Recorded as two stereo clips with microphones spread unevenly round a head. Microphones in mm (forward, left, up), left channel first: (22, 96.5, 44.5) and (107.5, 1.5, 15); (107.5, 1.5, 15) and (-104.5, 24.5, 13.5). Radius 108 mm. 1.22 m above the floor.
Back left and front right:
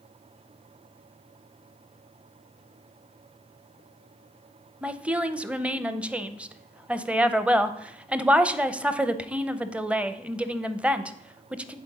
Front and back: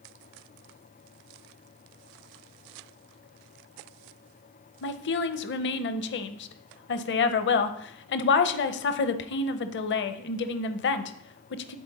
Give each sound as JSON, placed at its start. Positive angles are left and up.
{"t": 4.8, "sound": "a woman speaking", "azimuth_deg": 35, "distance_m": 0.7}